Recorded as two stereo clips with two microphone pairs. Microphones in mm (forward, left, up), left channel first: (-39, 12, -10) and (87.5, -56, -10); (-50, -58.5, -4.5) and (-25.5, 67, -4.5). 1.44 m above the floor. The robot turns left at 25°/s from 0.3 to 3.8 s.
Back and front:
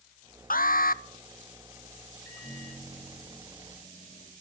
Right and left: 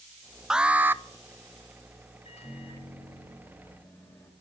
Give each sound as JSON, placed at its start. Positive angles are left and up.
{"t": 0.5, "sound": "an alarm", "azimuth_deg": 165, "distance_m": 0.5}
{"t": 2.2, "sound": "a microwave", "azimuth_deg": -135, "distance_m": 5.0}